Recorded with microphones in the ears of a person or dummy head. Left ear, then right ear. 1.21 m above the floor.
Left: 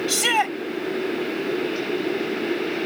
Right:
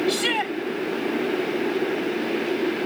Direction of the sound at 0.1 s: 35° left (ahead or behind).